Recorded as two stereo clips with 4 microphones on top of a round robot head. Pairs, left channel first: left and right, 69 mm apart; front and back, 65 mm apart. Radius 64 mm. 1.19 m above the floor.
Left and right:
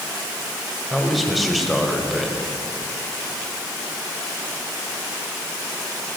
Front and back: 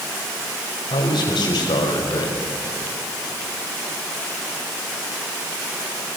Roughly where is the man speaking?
Ahead.